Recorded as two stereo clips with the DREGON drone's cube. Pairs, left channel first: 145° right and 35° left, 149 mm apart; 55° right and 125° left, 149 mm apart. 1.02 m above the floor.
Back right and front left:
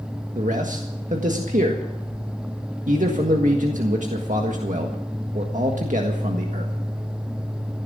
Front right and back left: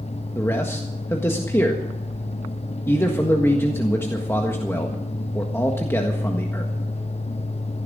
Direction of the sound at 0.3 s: 15° left.